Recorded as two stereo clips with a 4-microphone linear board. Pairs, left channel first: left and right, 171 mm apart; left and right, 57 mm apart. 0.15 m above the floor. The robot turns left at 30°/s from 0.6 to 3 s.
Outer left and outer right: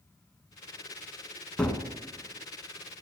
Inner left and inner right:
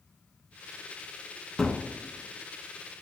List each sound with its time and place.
1.6 s a gunshot: 5° left (ahead or behind), 1.0 m; by 1.8 s 10° left (ahead or behind), 1.0 m